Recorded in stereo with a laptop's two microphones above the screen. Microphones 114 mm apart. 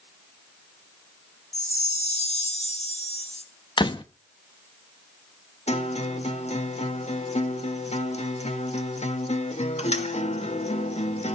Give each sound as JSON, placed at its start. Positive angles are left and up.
{"t": 1.5, "sound": "a chime", "side_deg": 65, "distance_m": 2.0}
{"t": 3.8, "sound": "a door slam", "side_deg": 40, "distance_m": 0.6}
{"t": 5.7, "sound": "a guitar", "side_deg": 65, "distance_m": 1.6}